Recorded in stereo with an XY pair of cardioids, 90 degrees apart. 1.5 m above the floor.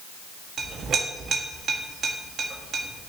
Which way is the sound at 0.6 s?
65° right.